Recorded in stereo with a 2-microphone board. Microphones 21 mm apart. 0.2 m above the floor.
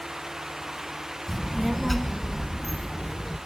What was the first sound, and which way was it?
A child speaking, 5° left (ahead or behind).